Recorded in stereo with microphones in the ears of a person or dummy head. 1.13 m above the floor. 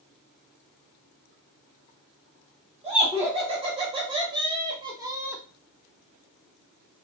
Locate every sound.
2.8 s laughter: 35° right (ahead or behind), 2.5 m; by 5.4 s 10° right (ahead or behind), 0.6 m